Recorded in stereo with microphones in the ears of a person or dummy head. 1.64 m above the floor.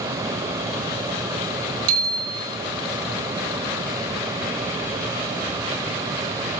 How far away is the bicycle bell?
About 5.5 m.